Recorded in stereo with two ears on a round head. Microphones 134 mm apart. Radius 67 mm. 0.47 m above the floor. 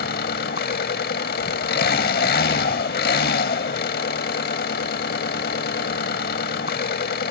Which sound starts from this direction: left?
An engine running, at 0.0 s.